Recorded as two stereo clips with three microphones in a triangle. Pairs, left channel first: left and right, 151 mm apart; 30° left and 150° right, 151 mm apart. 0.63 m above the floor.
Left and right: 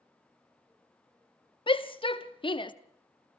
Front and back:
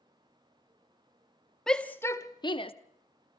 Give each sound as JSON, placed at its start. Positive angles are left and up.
{"t": 1.7, "sound": "a shout", "azimuth_deg": 115, "distance_m": 0.8}